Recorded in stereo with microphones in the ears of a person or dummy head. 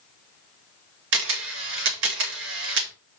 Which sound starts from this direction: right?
A camera shutter, at 1.1 s.